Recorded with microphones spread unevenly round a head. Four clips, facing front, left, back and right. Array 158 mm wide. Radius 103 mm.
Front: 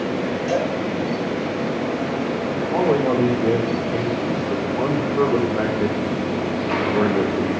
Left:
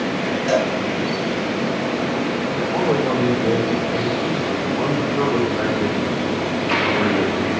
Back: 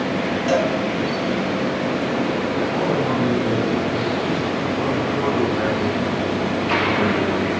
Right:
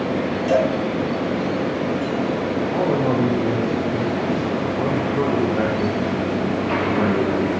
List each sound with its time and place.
0.5 s a cowbell: 145° left, 3 m
2.7 s a man speaking: 10° right, 2.5 m